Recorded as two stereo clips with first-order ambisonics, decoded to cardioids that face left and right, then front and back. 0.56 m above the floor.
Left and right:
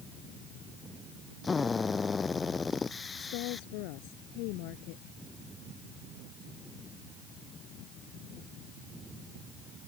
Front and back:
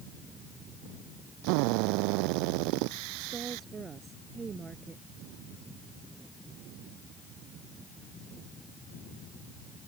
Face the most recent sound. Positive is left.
turn(degrees=110)